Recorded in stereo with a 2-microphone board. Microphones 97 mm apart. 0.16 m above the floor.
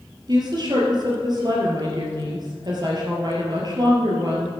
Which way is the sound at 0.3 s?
45° right (ahead or behind).